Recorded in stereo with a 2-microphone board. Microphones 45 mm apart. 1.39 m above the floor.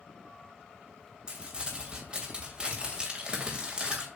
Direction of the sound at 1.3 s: 20° right (ahead or behind).